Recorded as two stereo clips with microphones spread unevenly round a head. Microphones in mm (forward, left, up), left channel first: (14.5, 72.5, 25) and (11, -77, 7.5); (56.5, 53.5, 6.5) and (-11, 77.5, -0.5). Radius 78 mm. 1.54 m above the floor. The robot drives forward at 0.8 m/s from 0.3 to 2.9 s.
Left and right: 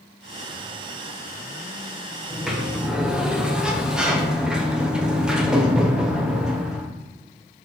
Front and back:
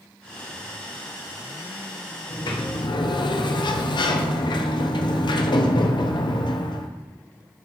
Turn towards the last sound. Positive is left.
turn(degrees=-5)